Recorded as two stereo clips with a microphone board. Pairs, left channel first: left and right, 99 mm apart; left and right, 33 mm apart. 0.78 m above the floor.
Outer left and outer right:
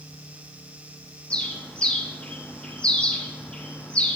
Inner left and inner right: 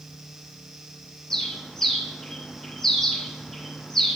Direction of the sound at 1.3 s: 10° left (ahead or behind).